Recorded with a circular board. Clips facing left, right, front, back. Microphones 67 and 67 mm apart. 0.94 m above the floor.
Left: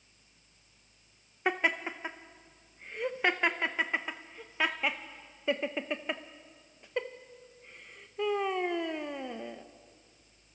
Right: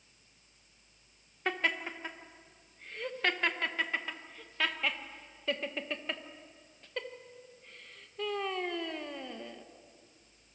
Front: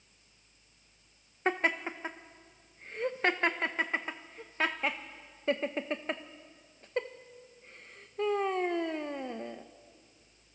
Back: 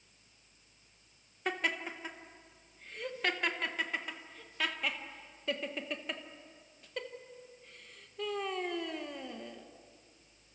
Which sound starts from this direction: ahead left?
Laughter, at 1.4 s.